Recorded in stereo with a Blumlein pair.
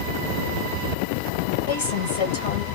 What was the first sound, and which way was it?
A woman speaking, 65° left.